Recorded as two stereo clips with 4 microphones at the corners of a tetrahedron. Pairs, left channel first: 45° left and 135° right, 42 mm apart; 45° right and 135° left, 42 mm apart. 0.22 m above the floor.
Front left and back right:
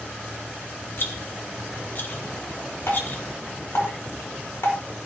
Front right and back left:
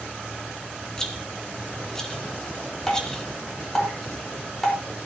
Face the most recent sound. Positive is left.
turn(degrees=35)